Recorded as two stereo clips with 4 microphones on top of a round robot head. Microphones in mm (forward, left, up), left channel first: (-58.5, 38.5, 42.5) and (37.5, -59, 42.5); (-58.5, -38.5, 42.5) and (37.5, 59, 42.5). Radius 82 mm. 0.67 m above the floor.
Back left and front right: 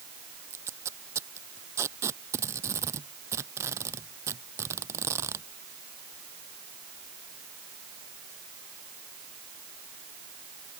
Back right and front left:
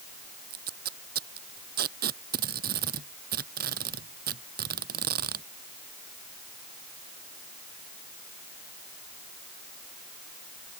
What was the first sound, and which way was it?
Tape being pulled, 25° left.